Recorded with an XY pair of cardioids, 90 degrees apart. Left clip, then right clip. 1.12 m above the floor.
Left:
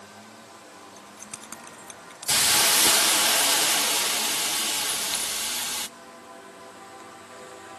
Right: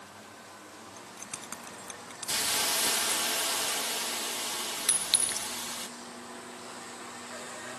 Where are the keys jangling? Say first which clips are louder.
Right 1 dB; 10° left.